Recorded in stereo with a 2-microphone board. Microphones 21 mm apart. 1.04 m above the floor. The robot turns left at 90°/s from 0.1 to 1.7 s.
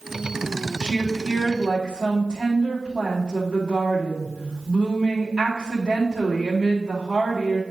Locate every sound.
0.8 s a woman speaking: 55° left, 2 m; by 7.6 s 30° right, 2 m